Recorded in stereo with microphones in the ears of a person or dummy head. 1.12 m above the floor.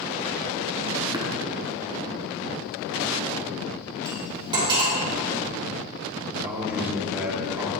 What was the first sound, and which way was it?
Tapping, 20° right (ahead or behind).